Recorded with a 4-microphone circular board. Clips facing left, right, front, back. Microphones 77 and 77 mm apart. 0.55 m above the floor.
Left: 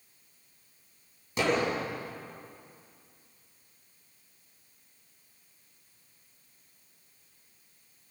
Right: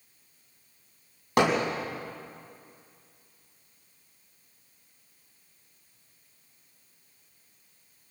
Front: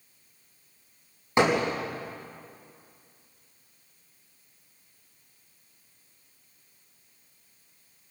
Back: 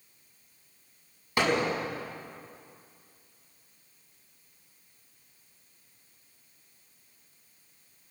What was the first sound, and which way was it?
Hammering, 65° right.